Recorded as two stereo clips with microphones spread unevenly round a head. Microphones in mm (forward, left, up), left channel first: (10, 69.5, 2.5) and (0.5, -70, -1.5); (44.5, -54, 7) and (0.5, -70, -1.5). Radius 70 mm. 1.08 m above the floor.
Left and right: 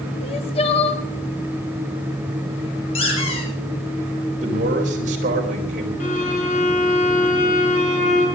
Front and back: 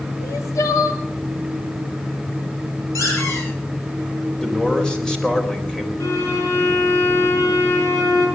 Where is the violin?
50° left, 4.5 m.